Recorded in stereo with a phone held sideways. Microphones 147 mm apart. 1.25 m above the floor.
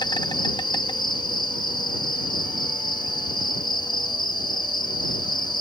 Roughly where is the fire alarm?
No fire alarm in this recording.